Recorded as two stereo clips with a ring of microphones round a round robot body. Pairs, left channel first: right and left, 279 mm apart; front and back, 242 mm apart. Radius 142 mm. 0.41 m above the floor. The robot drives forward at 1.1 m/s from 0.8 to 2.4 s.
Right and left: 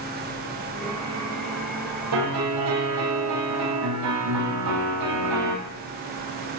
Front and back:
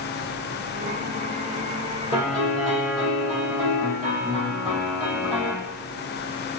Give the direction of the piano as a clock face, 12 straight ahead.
8 o'clock.